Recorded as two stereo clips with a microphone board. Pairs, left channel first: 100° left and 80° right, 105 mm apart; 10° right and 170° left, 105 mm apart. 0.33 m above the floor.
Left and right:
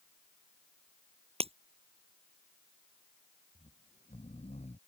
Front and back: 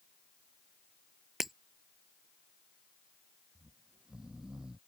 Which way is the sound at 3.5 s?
85° left.